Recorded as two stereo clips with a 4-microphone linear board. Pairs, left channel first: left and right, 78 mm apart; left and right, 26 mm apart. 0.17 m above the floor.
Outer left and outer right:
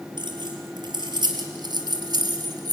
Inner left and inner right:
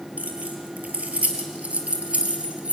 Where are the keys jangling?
75° right (ahead or behind), 3.5 m; by 2.7 s 55° right (ahead or behind), 2.5 m.